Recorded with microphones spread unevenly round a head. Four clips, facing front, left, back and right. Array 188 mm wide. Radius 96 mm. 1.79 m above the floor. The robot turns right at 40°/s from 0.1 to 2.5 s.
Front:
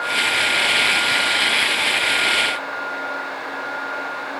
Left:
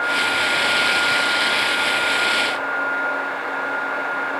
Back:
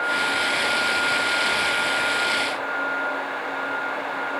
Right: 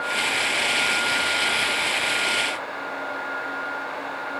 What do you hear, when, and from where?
Only background noise.